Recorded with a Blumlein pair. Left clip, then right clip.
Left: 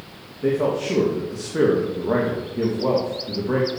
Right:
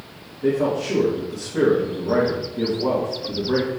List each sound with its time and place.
0.4 s a man speaking: 10° left, 2.5 m